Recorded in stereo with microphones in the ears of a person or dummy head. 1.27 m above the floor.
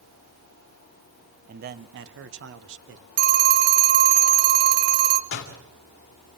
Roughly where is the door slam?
Left.